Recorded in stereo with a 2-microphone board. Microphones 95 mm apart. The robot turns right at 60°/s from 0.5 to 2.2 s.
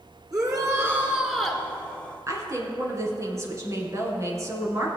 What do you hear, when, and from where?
0.3 s a shout: 55° right, 2 m; by 1.6 s 15° left, 2 m
2.3 s a woman speaking: 35° right (ahead or behind), 2 m